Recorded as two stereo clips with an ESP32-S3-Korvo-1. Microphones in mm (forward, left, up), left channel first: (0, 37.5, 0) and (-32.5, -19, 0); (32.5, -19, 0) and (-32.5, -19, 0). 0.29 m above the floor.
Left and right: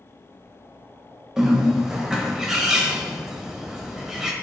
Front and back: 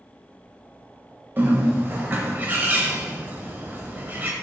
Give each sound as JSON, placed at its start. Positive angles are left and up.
{"t": 1.4, "sound": "a bird", "azimuth_deg": 165, "distance_m": 0.5}